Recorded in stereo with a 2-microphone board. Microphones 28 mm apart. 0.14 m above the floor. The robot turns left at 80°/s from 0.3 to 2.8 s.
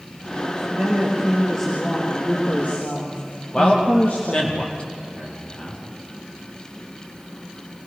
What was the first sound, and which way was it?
A woman speaking, 110° right.